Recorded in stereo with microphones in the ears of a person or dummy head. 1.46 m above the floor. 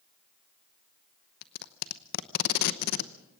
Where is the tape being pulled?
55° left (ahead or behind), 0.9 m.